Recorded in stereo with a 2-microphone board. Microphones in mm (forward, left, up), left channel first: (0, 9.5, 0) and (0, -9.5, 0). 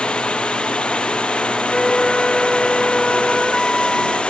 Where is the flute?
20° left (ahead or behind).